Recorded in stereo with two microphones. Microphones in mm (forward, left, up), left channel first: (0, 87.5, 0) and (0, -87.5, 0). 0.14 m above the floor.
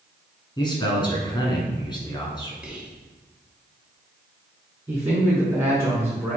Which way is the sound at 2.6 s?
5° right (ahead or behind).